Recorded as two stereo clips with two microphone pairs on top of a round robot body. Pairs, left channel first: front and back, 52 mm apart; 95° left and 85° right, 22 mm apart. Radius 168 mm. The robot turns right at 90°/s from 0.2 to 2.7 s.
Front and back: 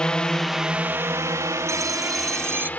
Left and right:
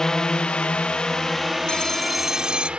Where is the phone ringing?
145° left; by 2.7 s 120° right.